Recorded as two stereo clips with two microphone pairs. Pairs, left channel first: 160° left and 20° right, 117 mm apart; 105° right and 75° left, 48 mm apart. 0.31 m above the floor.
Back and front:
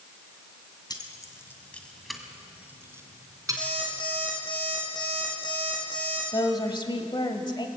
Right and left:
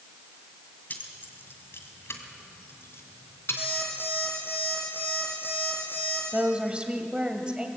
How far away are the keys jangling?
About 1.9 m.